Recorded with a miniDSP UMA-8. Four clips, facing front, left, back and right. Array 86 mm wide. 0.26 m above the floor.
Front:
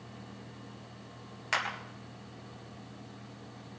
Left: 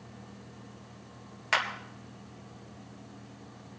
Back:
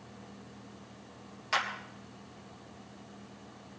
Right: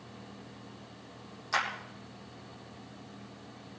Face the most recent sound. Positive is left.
turn(degrees=75)